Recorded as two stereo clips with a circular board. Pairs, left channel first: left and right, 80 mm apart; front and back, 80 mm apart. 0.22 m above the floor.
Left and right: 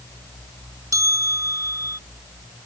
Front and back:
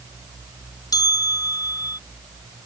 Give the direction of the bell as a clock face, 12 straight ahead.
1 o'clock.